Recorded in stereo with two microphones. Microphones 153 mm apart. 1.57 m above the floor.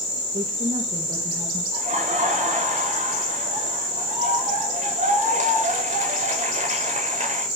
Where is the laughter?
50° right (ahead or behind), 7.5 m.